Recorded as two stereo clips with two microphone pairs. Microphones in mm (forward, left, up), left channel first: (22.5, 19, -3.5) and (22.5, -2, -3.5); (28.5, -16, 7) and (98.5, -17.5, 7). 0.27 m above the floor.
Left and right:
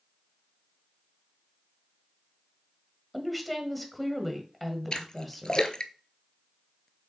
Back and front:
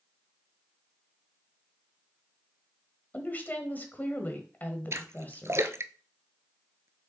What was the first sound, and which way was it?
A woman speaking, 175° left.